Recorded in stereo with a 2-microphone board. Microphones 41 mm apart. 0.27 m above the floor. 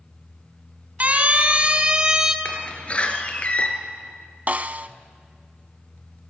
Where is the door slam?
30° left (ahead or behind), 3 m.